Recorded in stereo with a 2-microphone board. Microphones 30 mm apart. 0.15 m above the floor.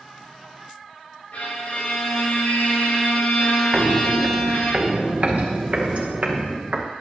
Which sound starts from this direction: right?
Footsteps, at 3.7 s.